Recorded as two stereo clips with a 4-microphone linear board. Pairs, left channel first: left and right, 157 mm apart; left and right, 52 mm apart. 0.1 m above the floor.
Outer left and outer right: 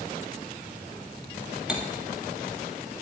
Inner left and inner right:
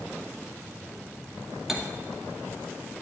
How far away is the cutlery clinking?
About 2.0 m.